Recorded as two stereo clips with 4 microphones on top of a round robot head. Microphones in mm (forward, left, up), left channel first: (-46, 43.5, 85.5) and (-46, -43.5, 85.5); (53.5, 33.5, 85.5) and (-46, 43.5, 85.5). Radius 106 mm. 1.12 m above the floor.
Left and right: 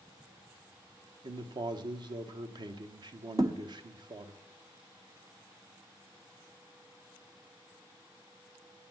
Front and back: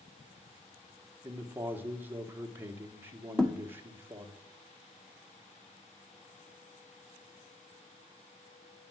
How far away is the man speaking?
About 1.5 m.